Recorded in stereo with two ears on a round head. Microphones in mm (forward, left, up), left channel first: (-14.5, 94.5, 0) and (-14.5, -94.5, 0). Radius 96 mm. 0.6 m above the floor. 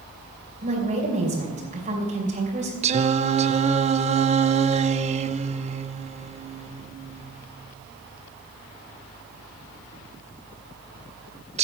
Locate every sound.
0.6 s a woman speaking: 40° right (ahead or behind), 2.5 m
2.8 s singing: 30° right (ahead or behind), 0.5 m